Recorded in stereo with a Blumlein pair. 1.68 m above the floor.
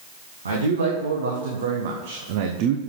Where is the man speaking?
70° right, 1.9 m; by 2.8 s 40° right, 0.8 m.